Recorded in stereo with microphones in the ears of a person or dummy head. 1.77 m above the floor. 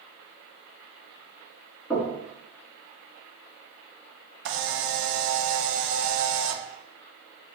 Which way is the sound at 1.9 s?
5° left (ahead or behind).